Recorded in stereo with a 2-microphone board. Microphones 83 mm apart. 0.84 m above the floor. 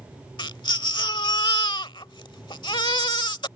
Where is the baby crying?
75° left (ahead or behind).